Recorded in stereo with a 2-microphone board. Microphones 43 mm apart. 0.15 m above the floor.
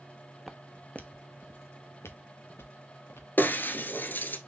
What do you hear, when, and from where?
0.5 s footsteps: centre (ahead or behind), 0.7 m; by 4.4 s 70° left (ahead or behind), 2 m
3.4 s breaking glass: 50° left (ahead or behind), 1.0 m